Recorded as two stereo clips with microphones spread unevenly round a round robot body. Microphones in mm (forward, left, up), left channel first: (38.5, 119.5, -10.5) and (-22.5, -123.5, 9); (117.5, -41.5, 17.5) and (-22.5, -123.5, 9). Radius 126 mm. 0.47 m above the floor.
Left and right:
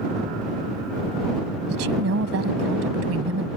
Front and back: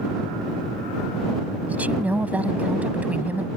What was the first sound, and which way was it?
A woman speaking, 70° right.